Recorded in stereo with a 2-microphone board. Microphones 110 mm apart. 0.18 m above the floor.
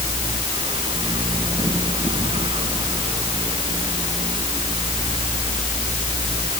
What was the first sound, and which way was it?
Only background noise.